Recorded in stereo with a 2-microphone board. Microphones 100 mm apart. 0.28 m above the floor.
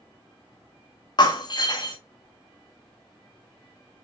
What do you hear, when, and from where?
1.2 s breaking glass: 45° left (ahead or behind), 1.8 m